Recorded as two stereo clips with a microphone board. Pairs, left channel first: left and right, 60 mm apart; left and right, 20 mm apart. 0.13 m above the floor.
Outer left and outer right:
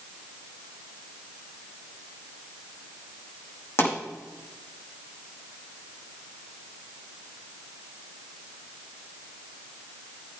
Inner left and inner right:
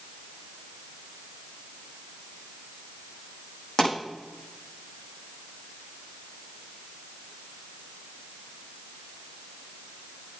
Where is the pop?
45° left (ahead or behind), 6 m.